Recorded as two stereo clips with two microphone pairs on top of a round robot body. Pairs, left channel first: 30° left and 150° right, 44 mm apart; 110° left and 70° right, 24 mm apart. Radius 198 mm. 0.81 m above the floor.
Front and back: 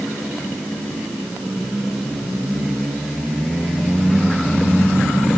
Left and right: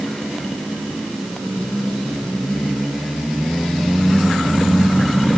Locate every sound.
Only background noise.